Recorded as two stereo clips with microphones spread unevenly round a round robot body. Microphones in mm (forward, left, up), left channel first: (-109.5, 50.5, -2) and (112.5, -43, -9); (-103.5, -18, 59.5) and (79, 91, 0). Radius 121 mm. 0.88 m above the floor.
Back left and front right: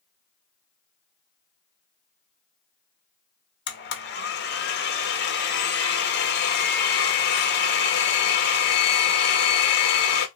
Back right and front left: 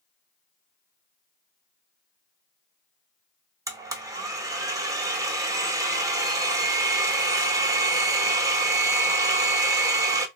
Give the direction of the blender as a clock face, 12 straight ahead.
8 o'clock.